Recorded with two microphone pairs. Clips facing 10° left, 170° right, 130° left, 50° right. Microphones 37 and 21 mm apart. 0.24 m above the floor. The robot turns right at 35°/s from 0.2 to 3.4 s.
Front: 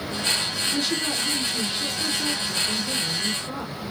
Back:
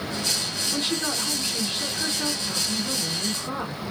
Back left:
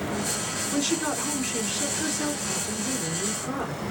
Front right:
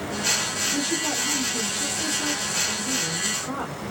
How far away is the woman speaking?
About 2 m.